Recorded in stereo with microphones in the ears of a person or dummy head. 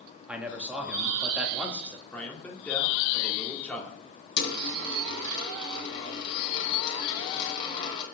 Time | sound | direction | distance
0.3 | a man speaking | centre (ahead or behind) | 1.9 m
2.1 | a man speaking | 15° left (ahead or behind) | 2 m
4.4 | a dropped coin | 35° left (ahead or behind) | 3 m